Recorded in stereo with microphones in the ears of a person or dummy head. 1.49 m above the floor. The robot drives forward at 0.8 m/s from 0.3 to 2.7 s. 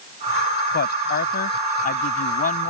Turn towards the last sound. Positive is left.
turn(degrees=45)  # may be behind; listen again after turning